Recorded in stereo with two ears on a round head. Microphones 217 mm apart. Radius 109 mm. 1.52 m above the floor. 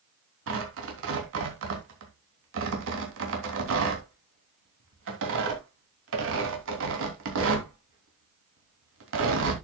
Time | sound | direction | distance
0.5 | tearing paper | 55° right (ahead or behind) | 3 m